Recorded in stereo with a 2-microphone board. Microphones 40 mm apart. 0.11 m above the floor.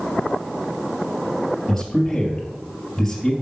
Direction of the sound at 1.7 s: 10° left (ahead or behind).